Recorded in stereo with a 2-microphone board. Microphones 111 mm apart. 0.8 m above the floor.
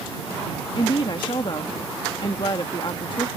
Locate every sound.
0.8 s a woman speaking: 45° left (ahead or behind)